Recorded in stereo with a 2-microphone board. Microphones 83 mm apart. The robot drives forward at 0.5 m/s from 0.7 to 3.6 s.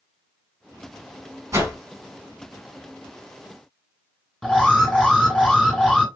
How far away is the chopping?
No chopping in this recording.